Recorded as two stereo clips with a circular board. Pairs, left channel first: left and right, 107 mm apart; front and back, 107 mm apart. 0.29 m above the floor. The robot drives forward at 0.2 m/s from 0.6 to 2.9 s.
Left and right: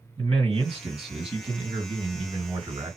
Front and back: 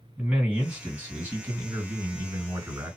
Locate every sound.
0.2 s a man speaking: 110° right, 2.5 m; by 3.0 s 120° right, 3 m